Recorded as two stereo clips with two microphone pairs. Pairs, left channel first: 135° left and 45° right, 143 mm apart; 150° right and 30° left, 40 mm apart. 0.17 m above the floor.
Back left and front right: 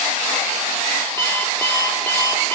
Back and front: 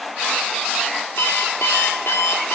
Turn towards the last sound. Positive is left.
turn(degrees=-150)